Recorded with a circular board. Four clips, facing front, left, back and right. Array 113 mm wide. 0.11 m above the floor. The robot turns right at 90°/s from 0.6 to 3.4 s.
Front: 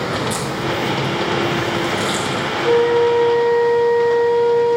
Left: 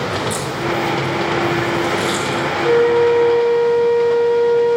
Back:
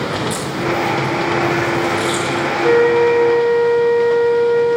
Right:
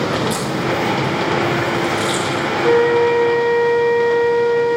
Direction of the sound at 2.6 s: 170° right.